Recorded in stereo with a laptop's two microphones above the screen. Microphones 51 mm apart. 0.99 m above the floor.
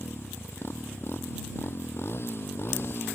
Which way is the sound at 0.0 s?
55° left (ahead or behind).